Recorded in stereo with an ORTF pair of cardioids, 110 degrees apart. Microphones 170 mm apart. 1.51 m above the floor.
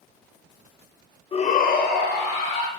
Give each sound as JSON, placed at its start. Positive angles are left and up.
{"t": 1.3, "sound": "a shout", "azimuth_deg": 30, "distance_m": 0.6}